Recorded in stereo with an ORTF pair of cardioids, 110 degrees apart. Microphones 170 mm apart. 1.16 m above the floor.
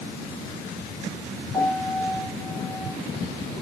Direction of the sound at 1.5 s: 20° left.